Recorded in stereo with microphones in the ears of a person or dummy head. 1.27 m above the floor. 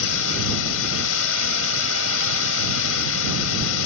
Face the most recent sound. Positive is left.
turn(degrees=75)  # may be behind; listen again after turning